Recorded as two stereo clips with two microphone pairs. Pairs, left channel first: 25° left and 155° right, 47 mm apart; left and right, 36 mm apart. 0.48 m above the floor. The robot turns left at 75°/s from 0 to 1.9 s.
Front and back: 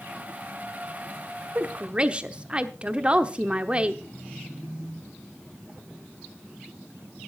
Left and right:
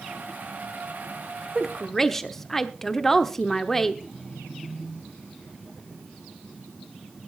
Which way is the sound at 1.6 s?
175° right.